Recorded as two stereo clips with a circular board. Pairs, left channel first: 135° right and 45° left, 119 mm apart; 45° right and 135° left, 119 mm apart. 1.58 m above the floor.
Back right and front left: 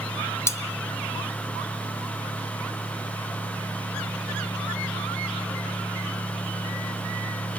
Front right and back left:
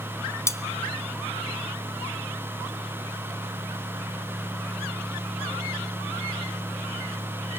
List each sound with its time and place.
0.5 s cutlery clinking: 90° right, 0.9 m